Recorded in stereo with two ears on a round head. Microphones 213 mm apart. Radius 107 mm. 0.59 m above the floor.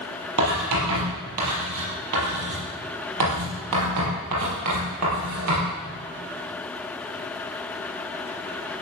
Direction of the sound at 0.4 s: 85° right.